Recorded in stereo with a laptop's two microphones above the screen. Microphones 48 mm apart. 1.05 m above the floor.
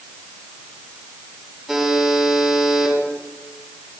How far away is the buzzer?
About 7.5 m.